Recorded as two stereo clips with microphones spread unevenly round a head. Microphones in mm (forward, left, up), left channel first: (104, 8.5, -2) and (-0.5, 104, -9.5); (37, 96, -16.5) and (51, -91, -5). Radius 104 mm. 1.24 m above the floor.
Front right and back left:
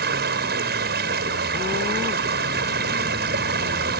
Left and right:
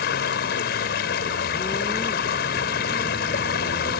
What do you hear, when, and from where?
0.0 s running water: 145° left